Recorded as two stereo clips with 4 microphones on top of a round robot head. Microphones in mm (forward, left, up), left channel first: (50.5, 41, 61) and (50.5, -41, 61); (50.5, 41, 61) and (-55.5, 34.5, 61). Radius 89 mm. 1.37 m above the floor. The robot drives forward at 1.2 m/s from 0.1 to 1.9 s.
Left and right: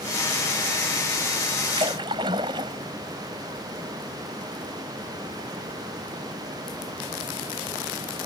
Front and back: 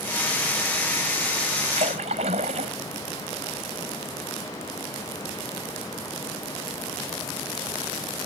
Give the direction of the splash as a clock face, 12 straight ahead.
5 o'clock.